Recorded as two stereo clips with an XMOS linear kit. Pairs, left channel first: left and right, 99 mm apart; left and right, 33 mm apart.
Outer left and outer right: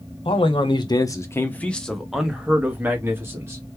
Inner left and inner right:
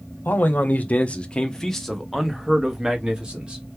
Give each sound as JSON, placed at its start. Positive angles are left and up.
{"t": 0.2, "sound": "a man speaking", "side_deg": 65, "distance_m": 0.9}